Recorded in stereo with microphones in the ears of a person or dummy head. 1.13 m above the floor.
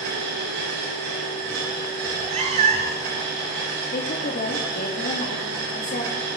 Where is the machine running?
70° right (ahead or behind), 8.5 m.